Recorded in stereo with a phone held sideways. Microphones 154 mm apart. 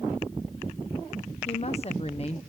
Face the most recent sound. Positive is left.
turn(degrees=40)  # may be behind; listen again after turning